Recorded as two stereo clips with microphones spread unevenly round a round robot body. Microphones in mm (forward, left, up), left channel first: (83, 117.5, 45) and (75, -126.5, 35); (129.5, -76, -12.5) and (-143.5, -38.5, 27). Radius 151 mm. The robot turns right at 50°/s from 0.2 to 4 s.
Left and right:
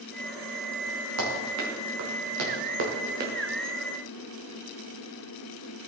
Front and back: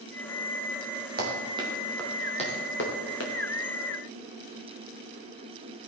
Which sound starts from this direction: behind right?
Running footsteps, at 1.2 s.